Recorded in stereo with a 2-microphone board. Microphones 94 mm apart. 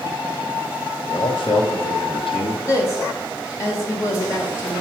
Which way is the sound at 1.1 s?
60° left (ahead or behind).